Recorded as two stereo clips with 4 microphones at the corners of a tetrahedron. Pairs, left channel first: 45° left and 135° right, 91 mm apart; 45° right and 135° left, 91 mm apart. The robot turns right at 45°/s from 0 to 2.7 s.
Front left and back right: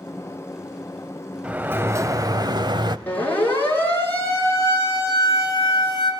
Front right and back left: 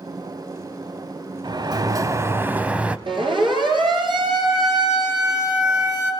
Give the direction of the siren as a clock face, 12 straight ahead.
8 o'clock.